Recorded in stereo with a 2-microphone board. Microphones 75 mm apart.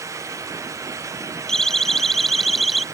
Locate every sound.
1.5 s a siren: 5° left (ahead or behind); by 2.8 s centre (ahead or behind)